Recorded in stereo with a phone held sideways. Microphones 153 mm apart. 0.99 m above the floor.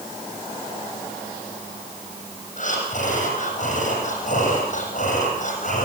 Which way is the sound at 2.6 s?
55° left (ahead or behind).